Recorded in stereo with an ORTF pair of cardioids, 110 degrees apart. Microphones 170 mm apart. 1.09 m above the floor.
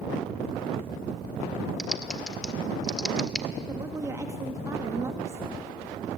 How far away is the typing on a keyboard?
About 1.6 m.